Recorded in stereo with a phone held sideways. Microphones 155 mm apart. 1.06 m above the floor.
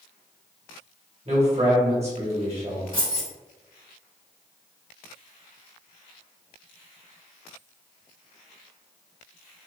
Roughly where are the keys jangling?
Right.